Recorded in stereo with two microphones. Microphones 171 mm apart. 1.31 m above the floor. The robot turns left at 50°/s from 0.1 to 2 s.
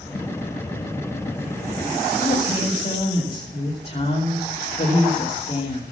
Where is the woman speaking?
35° left (ahead or behind), 3 m.